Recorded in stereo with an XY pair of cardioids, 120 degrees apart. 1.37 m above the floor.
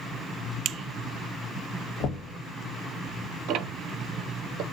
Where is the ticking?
70° right, 0.5 m.